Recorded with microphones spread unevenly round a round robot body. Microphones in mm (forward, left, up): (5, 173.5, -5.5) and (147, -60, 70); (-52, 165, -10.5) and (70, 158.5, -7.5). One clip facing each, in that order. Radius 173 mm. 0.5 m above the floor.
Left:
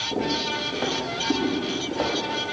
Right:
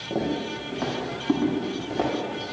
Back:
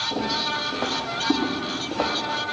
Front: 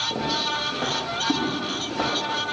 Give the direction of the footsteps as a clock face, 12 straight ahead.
2 o'clock.